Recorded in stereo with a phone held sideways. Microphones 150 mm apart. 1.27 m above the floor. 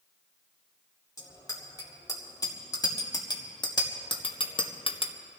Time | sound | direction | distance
1.2 | a bicycle bell | 25° left (ahead or behind) | 3 m